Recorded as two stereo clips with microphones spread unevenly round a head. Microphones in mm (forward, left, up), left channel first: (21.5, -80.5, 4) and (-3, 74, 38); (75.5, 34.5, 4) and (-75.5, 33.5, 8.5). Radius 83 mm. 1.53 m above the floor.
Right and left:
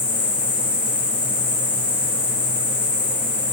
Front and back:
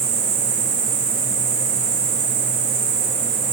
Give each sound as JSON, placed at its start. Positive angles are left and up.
{"t": 0.0, "sound": "an insect", "azimuth_deg": -165, "distance_m": 2.5}